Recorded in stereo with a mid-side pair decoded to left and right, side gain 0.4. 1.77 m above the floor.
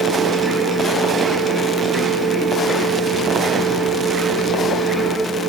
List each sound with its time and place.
0.0 s a machine running: 35° right, 8 m